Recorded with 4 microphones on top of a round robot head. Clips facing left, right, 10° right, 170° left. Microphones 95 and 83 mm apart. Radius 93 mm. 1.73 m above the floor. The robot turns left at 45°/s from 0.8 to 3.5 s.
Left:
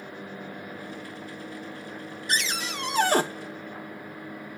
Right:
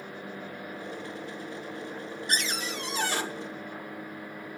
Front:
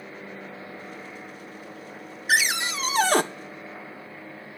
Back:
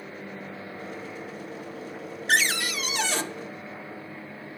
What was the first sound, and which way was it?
A cupboard door, 75° left.